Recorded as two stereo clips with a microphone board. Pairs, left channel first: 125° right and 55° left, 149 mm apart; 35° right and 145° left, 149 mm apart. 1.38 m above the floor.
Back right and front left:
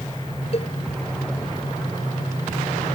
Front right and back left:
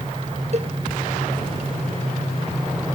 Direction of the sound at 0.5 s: 170° right.